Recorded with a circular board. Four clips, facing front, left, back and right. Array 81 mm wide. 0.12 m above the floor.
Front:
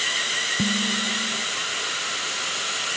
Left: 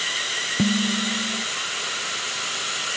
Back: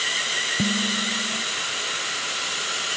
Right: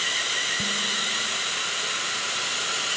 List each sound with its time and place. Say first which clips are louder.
0.6 s dishes clattering: left 7 dB, even; 80° left